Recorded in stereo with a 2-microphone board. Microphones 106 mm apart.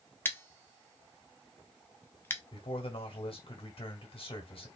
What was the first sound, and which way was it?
Scissors, 20° left (ahead or behind).